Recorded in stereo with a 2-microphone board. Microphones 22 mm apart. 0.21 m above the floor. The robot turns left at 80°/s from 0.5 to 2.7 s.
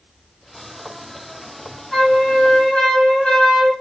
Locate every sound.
1.9 s a flute: 155° left, 2 m; by 3.7 s 95° left, 2 m